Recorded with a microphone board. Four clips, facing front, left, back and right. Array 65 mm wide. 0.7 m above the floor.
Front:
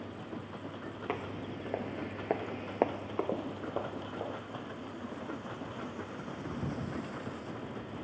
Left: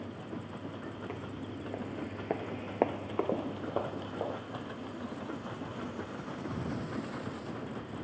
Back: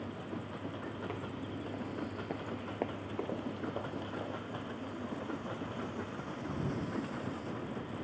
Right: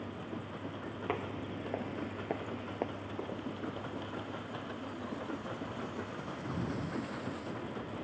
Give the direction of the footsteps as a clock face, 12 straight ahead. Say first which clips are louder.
Right 3 dB, front 3 dB; 2 o'clock.